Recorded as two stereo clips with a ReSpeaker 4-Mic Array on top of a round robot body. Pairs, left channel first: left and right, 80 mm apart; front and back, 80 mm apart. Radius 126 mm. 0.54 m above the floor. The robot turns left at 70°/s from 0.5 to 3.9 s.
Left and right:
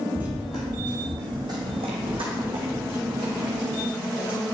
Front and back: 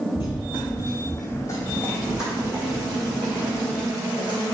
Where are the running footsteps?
25° right, 0.6 m; by 4.5 s 150° left, 2.5 m.